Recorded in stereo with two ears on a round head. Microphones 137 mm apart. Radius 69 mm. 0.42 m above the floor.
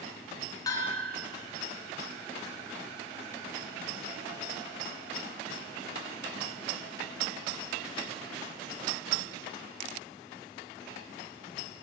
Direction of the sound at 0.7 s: 25° left (ahead or behind).